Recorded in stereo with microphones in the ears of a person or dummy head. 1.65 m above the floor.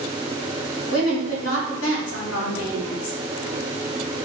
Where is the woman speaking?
90° left, 1.4 m.